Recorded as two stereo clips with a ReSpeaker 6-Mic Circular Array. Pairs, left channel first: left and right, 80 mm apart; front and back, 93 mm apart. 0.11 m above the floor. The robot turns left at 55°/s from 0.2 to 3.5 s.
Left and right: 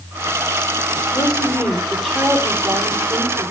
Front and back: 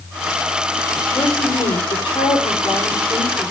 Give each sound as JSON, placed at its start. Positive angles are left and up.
{"t": 1.1, "sound": "a woman speaking", "azimuth_deg": 50, "distance_m": 6.5}